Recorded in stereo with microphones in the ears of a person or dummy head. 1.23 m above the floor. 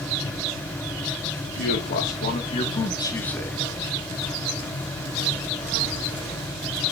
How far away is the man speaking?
About 1.5 m.